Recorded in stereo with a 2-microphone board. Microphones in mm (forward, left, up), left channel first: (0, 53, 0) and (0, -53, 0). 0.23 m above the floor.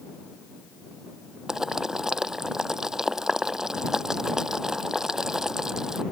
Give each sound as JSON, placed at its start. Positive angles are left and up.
{"t": 1.5, "sound": "boiling", "side_deg": -5}